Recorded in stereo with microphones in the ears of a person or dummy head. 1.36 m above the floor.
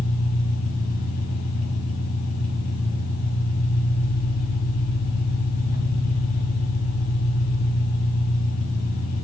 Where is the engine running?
75° left (ahead or behind), 3.5 m.